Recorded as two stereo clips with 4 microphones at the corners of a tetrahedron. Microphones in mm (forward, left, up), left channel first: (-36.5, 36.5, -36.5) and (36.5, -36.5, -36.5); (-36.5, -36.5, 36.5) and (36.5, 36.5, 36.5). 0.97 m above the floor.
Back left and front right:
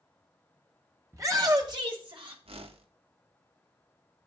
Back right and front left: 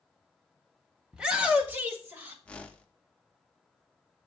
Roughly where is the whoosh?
Ahead right.